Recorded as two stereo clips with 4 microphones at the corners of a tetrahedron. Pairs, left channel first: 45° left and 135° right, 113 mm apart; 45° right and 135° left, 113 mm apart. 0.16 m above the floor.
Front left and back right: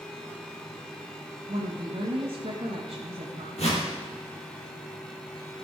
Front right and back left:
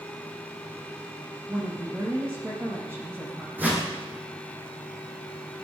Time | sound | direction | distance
1.5 | a woman speaking | 155° right | 5.5 m
3.6 | a whoosh | 60° left | 3.5 m